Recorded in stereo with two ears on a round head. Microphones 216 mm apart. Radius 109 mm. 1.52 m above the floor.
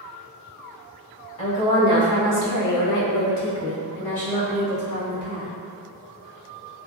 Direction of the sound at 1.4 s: 25° left (ahead or behind).